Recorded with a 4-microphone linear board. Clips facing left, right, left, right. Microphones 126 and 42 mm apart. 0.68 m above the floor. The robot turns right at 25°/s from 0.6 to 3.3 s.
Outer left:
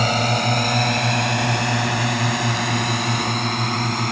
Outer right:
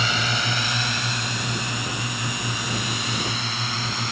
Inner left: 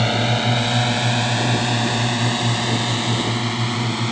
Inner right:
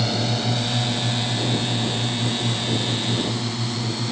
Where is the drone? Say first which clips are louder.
Outer left 7 dB, inner left 5 dB; 45° left (ahead or behind); by 4.1 s 50° left (ahead or behind).